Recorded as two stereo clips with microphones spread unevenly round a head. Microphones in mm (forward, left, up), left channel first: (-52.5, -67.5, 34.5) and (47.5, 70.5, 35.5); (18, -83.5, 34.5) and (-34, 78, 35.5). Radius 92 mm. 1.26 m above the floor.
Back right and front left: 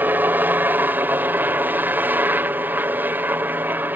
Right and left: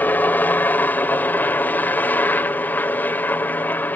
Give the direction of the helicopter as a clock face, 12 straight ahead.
12 o'clock.